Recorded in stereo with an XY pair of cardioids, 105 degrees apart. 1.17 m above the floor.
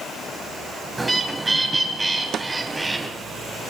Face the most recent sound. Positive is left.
turn(degrees=-60)